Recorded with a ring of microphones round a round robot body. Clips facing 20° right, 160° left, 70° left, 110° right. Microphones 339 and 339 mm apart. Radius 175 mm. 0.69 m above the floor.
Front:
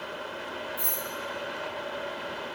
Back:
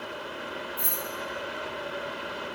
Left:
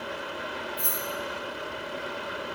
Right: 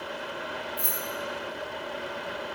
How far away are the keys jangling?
About 2.5 m.